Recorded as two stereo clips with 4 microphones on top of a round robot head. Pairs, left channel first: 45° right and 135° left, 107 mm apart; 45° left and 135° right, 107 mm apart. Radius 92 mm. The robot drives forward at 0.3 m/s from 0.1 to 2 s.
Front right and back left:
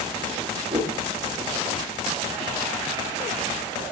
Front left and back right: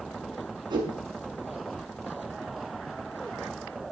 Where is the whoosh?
175° left, 5.5 m.